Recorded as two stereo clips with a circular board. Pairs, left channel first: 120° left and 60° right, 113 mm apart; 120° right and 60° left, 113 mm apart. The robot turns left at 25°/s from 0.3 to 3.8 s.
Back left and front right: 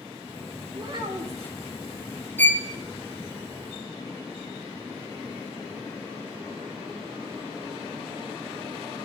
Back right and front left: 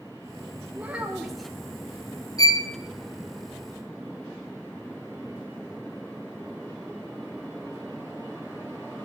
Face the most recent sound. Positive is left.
turn(degrees=155)